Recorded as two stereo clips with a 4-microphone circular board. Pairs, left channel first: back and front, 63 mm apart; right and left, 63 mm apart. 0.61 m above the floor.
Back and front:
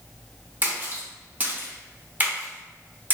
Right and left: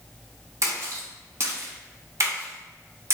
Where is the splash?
60° left, 0.8 m.